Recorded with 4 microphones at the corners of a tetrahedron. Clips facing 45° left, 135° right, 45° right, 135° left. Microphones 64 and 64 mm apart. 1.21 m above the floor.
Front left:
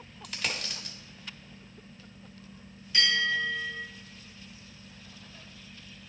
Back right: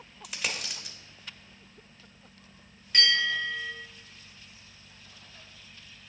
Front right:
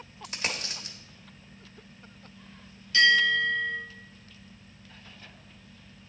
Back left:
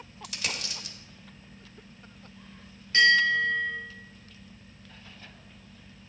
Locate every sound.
0.2 s a dropped coin: 55° right, 1.0 m
2.9 s a bell: 175° right, 3.5 m